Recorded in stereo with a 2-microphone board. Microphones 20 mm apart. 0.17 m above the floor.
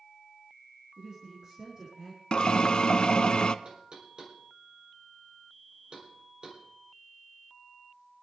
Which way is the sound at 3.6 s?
40° right (ahead or behind).